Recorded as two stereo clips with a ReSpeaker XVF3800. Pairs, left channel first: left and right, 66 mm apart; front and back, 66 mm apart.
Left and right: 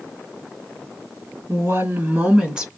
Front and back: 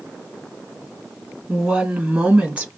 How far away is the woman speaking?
About 1.9 m.